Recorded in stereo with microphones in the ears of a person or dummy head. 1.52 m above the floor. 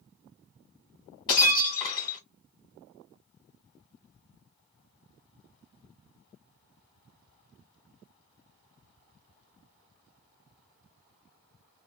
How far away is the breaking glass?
About 1.9 m.